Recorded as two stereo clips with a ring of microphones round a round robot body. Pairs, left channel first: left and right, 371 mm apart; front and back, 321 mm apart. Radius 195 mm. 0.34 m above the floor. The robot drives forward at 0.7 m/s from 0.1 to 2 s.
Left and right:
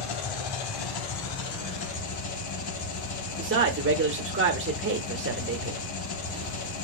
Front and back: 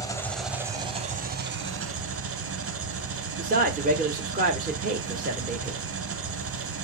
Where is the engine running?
80° left, 1.3 m; by 6.8 s 135° left, 1.7 m.